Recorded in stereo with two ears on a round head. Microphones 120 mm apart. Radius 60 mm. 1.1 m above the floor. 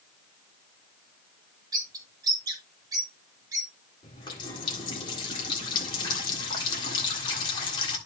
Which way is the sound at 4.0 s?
35° left (ahead or behind).